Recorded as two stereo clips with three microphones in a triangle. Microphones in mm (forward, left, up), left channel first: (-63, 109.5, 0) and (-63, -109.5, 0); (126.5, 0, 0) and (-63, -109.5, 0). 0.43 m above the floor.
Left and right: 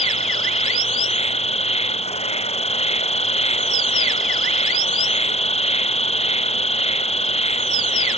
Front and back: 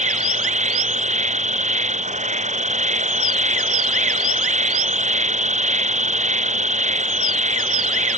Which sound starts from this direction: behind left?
An insect, at 0.0 s.